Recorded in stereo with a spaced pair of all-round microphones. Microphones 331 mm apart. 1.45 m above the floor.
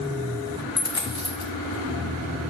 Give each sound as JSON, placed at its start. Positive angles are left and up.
{"t": 0.8, "sound": "a dropped coin", "side_deg": 15, "distance_m": 1.4}